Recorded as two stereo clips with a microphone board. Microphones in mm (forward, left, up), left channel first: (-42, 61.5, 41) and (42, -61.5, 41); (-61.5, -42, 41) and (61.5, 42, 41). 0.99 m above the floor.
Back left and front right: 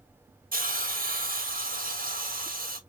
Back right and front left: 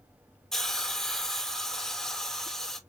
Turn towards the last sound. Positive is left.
turn(degrees=-60)